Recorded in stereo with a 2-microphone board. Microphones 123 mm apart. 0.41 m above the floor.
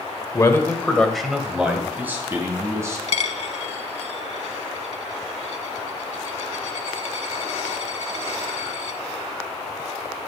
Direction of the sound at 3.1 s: 60° left (ahead or behind).